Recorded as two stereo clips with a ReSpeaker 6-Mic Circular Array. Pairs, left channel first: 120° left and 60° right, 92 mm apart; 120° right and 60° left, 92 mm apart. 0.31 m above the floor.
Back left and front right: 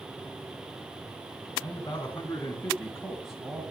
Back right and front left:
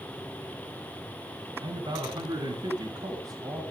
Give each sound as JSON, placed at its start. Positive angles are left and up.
{"t": 1.6, "sound": "a man speaking", "azimuth_deg": 70, "distance_m": 3.0}